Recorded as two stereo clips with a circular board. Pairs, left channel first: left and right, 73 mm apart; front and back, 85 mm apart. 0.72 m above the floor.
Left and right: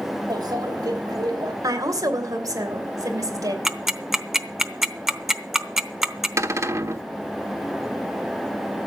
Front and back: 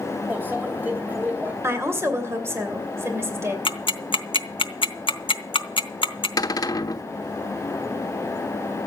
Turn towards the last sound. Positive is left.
turn(degrees=-40)